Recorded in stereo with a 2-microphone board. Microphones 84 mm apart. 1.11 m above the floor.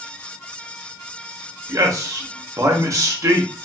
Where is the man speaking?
40° right (ahead or behind), 0.9 m.